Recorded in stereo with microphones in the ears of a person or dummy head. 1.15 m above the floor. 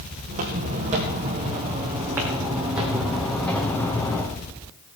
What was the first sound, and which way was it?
Footsteps, 40° right (ahead or behind).